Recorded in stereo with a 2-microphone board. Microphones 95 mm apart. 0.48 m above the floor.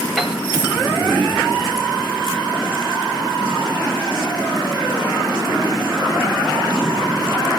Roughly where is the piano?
Centre.